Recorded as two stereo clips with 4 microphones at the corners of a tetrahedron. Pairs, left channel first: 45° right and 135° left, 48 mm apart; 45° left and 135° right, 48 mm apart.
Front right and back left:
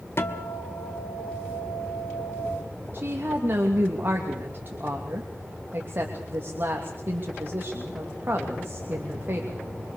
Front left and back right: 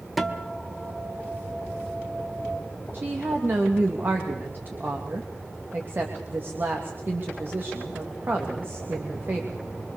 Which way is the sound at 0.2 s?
45° right.